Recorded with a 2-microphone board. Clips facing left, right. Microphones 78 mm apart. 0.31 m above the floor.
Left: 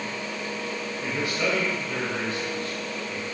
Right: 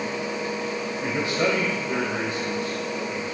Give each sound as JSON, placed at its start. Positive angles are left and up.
{"t": 1.0, "sound": "a man speaking", "side_deg": -25, "distance_m": 1.8}